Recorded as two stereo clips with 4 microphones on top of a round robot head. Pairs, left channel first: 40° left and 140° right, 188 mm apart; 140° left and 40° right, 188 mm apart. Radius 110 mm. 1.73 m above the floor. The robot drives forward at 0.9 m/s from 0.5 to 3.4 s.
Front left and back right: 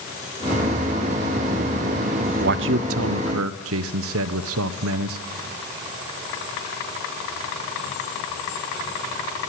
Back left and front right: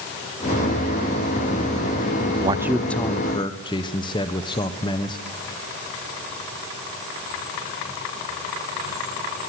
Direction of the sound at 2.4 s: 100° right.